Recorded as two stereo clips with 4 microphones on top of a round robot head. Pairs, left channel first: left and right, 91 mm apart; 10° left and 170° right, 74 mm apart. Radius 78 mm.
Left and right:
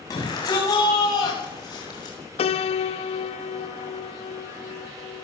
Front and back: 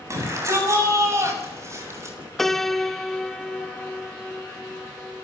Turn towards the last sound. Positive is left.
turn(degrees=100)